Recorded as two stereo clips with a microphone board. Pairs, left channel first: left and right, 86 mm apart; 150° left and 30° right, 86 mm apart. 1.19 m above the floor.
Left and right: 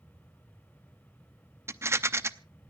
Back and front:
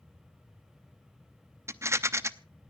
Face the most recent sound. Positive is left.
turn(degrees=-60)